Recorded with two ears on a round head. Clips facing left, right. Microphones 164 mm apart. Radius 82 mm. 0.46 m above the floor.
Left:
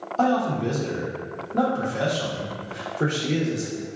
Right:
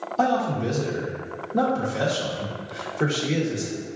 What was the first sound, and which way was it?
A man speaking, 5° right (ahead or behind).